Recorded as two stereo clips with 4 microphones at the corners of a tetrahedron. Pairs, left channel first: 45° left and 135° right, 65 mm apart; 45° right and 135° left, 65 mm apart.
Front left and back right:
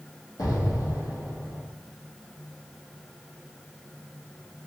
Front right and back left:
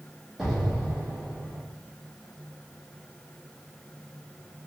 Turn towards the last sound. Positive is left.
turn(degrees=55)